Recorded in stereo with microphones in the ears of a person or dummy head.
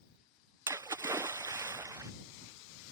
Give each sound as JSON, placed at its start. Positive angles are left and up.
{"t": 0.7, "sound": "a splash", "side_deg": -15}